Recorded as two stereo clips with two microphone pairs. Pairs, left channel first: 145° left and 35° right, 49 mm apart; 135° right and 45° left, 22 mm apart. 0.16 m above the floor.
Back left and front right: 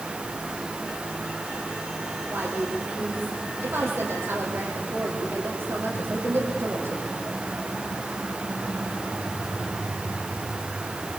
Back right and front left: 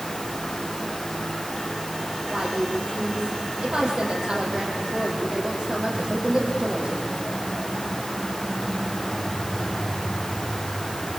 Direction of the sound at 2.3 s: Straight ahead.